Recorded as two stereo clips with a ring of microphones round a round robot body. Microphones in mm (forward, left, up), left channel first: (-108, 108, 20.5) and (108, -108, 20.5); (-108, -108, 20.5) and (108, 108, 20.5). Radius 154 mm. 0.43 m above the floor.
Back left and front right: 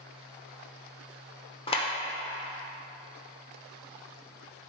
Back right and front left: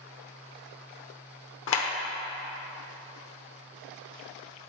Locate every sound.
1.7 s a clap: 160° right, 0.9 m